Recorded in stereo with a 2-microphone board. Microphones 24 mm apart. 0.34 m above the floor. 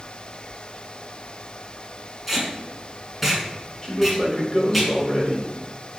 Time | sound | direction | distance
2.3 | tape being pulled | centre (ahead or behind) | 1.6 m
3.8 | a man speaking | 30° left (ahead or behind) | 1.7 m